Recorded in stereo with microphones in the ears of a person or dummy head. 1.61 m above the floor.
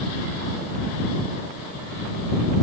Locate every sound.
Only background noise.